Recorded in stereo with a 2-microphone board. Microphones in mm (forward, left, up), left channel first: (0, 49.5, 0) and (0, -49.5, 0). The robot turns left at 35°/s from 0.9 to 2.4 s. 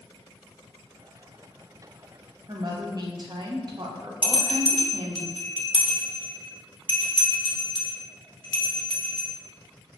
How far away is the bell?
About 0.6 m.